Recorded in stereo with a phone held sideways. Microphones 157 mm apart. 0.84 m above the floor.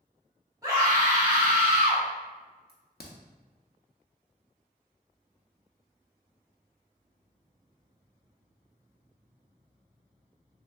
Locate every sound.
0.6 s a scream: 20° right (ahead or behind), 1.6 m
2.7 s a crack: 80° left, 0.6 m